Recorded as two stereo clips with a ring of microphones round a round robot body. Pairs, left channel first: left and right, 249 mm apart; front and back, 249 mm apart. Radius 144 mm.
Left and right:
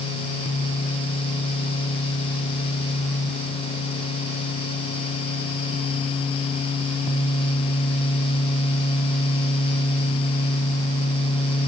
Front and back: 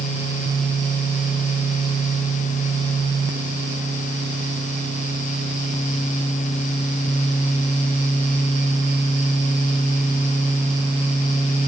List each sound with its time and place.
Only background noise.